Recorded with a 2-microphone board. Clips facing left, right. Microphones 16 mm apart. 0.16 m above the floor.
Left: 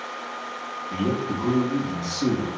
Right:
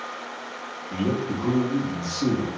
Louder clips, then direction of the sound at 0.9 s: Even; 40° left (ahead or behind).